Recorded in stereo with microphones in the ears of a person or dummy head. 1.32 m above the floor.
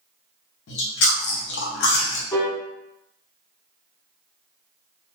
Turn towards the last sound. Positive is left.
turn(degrees=15)  # may be behind; listen again after turning